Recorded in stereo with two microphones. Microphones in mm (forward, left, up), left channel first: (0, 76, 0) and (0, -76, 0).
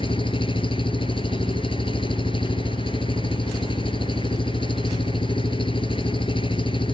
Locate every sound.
0.0 s an engine running: 35° left (ahead or behind)